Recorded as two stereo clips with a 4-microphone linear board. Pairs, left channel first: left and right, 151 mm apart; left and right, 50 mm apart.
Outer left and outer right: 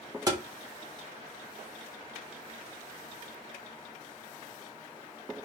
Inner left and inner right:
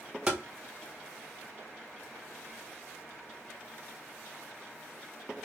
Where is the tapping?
25° right (ahead or behind), 0.7 m.